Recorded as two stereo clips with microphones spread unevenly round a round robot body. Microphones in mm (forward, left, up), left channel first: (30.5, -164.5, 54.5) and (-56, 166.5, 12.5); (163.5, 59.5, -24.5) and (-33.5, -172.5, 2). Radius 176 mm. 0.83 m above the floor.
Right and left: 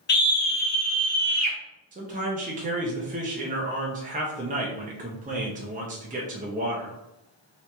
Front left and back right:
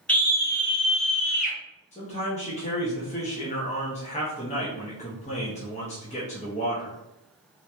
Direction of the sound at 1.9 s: 85° left.